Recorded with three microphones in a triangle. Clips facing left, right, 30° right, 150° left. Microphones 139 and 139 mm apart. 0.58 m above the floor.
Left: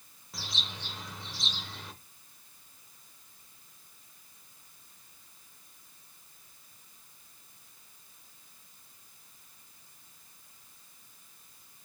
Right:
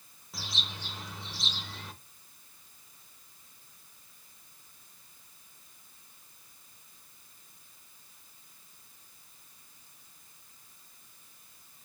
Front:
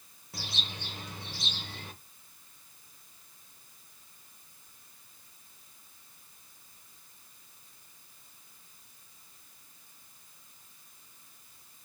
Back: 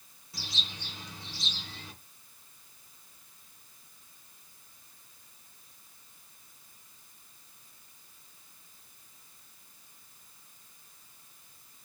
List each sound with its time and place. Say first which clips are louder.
0.3 s a bird: even, front 2 dB; straight ahead, 0.9 m